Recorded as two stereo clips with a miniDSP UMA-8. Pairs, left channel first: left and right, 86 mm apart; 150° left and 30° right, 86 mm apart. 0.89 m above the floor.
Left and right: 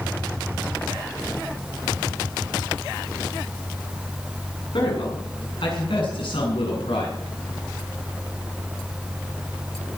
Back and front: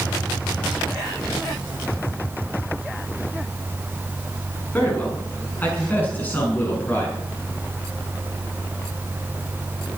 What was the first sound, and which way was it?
A man speaking, 80° left.